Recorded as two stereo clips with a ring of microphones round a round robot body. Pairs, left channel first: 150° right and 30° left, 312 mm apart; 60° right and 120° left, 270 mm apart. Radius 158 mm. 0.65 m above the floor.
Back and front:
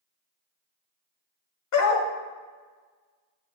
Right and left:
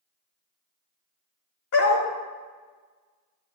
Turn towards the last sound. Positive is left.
turn(degrees=-110)